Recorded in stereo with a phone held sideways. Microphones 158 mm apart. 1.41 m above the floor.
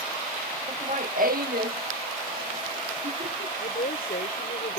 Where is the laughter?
45° right (ahead or behind); by 3.5 s 75° right (ahead or behind).